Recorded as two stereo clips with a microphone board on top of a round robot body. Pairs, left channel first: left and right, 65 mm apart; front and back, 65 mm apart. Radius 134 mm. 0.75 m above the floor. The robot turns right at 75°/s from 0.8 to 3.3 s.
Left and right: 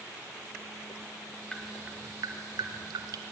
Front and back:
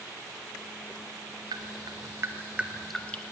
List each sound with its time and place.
1.5 s dripping: 170° left, 0.8 m; by 3.2 s 60° right, 0.8 m